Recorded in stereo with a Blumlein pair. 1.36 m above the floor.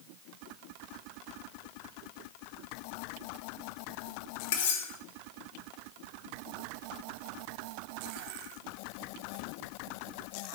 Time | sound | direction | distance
4.5 | cutlery clinking | 50° left | 1.6 m